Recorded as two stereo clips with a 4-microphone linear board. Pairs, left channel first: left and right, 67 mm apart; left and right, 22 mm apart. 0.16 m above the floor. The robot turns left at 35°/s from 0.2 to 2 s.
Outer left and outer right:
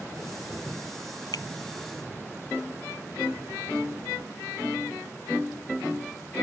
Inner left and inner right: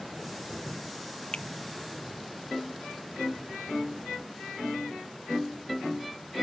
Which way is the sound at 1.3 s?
65° left (ahead or behind).